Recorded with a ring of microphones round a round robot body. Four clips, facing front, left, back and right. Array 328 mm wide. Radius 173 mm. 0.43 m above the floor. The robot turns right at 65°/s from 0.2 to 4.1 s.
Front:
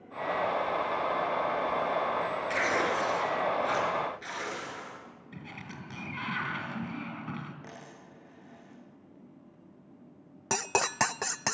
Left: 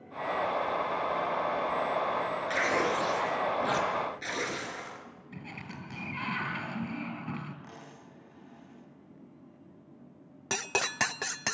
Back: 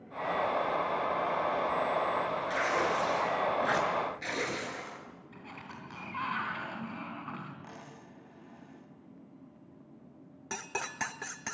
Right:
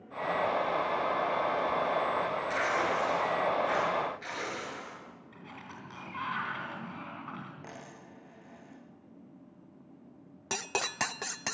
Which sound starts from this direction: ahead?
Cutlery clinking, at 10.5 s.